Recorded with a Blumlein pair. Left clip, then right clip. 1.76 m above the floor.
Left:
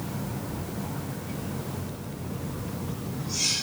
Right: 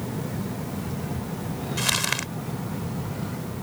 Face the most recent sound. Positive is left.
turn(degrees=-45)